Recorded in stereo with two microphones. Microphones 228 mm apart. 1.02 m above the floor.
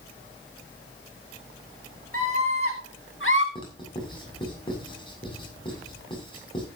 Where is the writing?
20° left (ahead or behind), 7 m.